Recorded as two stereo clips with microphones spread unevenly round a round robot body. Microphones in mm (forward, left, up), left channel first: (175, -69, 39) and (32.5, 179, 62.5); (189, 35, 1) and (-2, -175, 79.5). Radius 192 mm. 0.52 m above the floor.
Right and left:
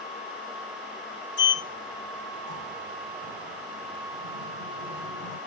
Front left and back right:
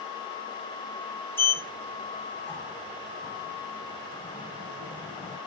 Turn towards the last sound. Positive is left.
turn(degrees=-40)